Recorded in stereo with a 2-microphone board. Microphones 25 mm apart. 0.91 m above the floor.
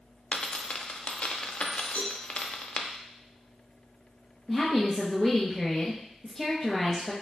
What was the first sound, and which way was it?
A dropped coin, 50° left (ahead or behind).